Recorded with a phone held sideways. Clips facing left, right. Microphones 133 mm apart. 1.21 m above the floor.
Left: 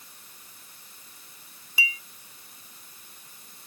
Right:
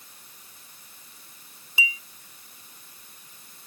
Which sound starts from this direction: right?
A clink, at 1.8 s.